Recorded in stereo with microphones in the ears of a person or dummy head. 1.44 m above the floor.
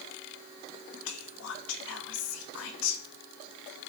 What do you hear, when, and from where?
1.1 s whispering: 70° left (ahead or behind), 0.6 m